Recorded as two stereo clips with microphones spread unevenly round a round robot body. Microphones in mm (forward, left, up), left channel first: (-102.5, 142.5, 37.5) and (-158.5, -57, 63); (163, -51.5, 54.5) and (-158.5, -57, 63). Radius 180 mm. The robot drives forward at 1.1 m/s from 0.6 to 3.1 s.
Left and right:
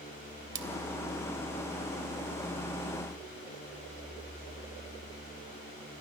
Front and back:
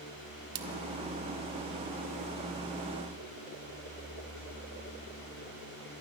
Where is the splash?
135° right, 2.5 m.